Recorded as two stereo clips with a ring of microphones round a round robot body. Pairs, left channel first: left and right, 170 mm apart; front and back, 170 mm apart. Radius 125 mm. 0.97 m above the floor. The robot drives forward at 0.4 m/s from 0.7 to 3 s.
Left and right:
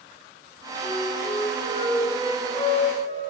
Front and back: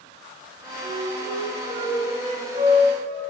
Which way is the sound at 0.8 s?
140° left.